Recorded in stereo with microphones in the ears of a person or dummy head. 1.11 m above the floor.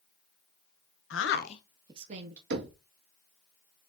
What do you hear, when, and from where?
1.1 s a woman speaking: 60° left (ahead or behind), 0.9 m; by 2.4 s 50° right (ahead or behind), 1.1 m
2.5 s knocking: 60° right (ahead or behind), 0.9 m